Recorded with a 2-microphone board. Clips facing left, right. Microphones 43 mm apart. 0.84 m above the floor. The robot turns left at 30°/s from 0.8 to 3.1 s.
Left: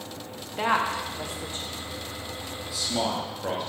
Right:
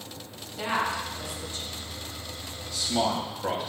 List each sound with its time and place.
0.6 s a woman speaking: 50° left (ahead or behind), 1.1 m; by 1.7 s 30° left (ahead or behind), 1.1 m
2.7 s a man speaking: 5° left (ahead or behind), 1.6 m; by 3.7 s 5° right (ahead or behind), 1.6 m